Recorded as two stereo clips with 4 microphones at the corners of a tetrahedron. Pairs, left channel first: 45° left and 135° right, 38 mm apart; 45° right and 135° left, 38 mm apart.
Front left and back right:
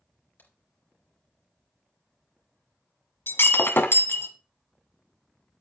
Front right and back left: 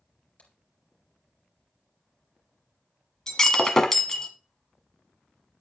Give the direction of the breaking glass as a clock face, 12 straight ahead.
11 o'clock.